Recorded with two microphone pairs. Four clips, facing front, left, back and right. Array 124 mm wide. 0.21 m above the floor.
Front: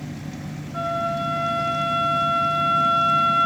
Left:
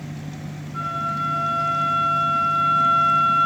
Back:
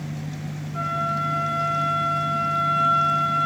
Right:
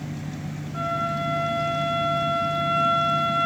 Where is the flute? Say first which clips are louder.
Even, front 2 dB; 15° right, 3 m.